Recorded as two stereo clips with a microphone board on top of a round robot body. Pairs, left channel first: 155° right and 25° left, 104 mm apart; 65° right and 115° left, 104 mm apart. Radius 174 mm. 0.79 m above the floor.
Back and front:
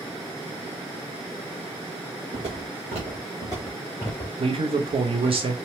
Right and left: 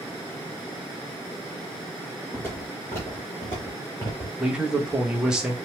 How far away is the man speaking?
About 0.8 m.